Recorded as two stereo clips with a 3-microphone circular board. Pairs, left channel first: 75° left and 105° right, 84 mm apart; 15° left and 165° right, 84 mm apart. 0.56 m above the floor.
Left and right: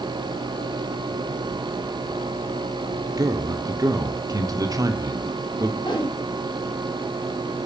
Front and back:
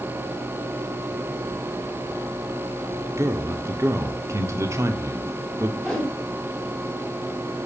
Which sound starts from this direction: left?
A whoosh, at 5.8 s.